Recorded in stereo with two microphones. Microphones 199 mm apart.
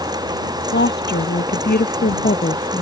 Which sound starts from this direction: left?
A woman speaking, at 0.7 s.